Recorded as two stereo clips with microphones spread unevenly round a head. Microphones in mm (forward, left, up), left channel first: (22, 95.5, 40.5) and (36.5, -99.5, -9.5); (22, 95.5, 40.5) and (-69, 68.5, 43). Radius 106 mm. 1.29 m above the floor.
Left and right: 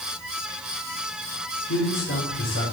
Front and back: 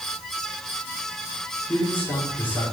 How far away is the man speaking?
About 4.5 m.